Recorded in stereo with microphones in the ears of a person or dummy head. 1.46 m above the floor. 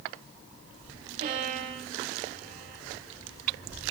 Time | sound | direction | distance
1.2 | a violin | 40° right (ahead or behind) | 1.1 m